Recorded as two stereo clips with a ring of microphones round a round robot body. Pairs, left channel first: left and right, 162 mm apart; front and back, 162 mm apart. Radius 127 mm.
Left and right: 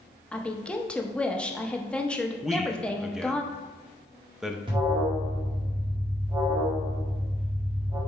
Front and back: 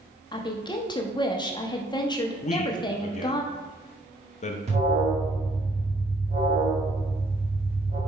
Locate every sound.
0.3 s a woman speaking: 15° left, 1.0 m
2.4 s a man speaking: 5° right, 0.8 m
4.7 s an alarm: 145° right, 1.6 m